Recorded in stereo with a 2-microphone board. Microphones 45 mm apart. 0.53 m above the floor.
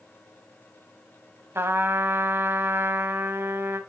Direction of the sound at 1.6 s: 75° right (ahead or behind).